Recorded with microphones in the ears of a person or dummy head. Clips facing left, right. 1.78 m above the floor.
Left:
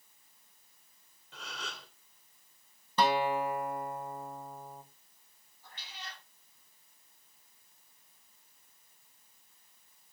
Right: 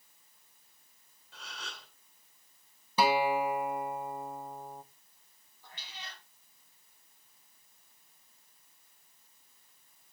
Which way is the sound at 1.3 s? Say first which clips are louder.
Left 3 dB; 65° left (ahead or behind).